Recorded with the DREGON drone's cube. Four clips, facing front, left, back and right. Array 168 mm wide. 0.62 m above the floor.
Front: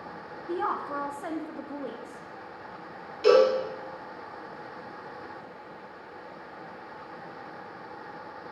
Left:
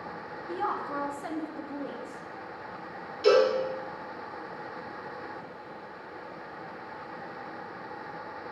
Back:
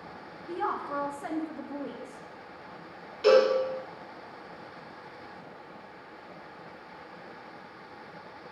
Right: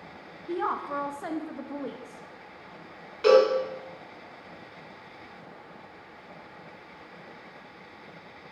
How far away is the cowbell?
About 2.5 m.